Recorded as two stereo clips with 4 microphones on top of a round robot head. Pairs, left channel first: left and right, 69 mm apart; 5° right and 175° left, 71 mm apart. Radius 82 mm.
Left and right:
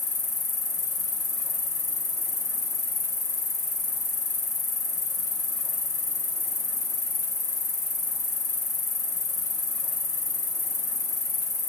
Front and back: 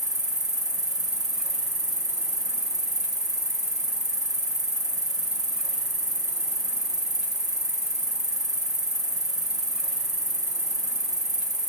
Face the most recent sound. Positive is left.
turn(degrees=90)